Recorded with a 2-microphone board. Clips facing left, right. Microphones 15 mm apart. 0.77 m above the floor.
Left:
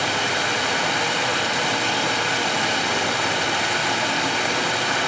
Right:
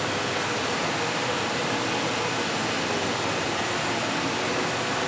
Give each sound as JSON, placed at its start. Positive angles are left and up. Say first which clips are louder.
{"t": 0.0, "sound": "running water", "louder": "left 5 dB", "side_deg": 50, "distance_m": 2.0}